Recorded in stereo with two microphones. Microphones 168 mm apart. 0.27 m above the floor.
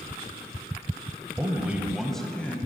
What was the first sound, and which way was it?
A man speaking, 15° right (ahead or behind).